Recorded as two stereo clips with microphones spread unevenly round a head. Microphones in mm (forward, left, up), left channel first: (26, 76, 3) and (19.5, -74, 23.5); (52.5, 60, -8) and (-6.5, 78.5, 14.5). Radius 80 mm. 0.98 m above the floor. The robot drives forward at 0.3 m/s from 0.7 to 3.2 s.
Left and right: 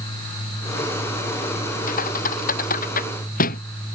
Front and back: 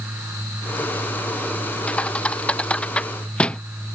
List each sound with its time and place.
1.9 s a thud: 55° left